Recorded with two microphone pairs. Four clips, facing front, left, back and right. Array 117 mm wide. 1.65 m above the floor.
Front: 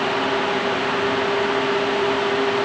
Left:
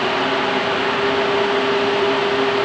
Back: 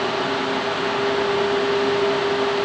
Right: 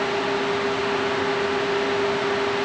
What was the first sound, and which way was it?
Only background noise.